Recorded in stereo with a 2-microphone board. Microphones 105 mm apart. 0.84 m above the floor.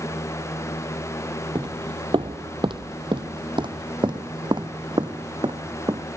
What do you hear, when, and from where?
1.6 s footsteps: 50° right (ahead or behind); by 6.1 s 45° right (ahead or behind)